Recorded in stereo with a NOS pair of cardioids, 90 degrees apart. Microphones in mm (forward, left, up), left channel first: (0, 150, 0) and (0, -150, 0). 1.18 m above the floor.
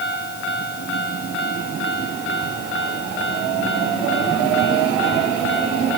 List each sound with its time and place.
Only background noise.